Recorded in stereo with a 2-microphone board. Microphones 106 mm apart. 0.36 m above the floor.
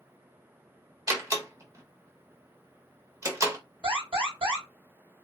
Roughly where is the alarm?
Right.